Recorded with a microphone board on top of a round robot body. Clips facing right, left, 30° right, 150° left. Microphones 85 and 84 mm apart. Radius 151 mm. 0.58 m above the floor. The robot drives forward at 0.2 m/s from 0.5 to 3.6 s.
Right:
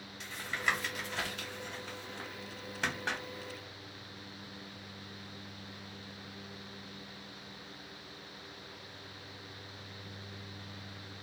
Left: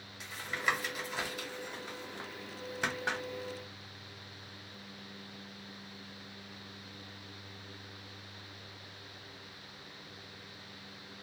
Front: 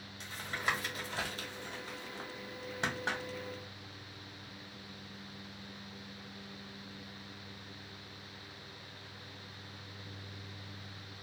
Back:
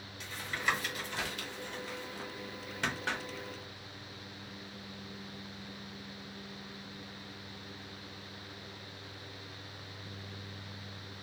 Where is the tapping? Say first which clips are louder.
Even, back 2 dB; 10° left, 1.3 m; by 3.2 s 20° left, 0.9 m.